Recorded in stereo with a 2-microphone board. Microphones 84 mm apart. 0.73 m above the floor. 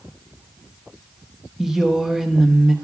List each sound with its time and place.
1.6 s a woman speaking: 5° right (ahead or behind), 0.7 m